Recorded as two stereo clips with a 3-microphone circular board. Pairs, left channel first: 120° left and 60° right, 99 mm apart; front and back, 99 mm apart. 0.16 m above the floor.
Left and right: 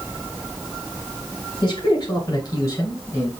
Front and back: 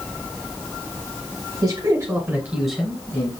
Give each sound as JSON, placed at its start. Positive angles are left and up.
{"t": 1.6, "sound": "a man speaking", "azimuth_deg": 150, "distance_m": 2.5}